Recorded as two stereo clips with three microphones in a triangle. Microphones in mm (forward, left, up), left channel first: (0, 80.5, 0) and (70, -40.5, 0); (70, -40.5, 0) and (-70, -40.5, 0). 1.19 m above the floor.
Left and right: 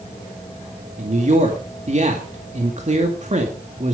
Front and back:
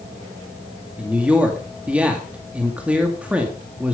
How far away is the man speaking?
About 2.0 m.